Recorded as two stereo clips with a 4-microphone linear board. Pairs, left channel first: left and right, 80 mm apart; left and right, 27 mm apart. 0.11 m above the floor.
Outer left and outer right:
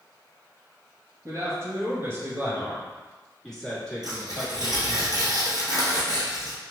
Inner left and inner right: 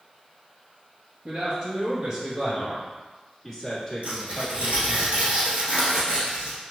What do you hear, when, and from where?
1.2 s a man speaking: 40° right (ahead or behind), 1.6 m; by 5.0 s 30° left (ahead or behind), 1.7 m
4.0 s tearing paper: 55° right (ahead or behind), 1.6 m